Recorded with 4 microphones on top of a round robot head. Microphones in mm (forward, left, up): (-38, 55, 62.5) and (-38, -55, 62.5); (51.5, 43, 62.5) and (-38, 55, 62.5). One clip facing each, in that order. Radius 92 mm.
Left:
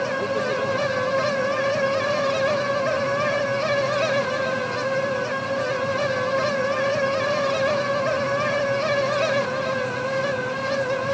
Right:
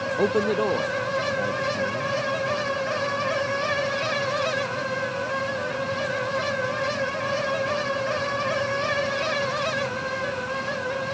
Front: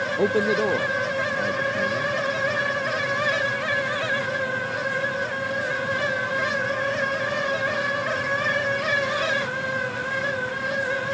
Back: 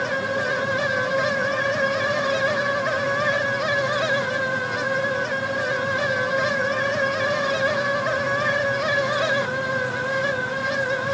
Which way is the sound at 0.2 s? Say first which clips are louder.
Right 2 dB, front 3 dB; 25° right.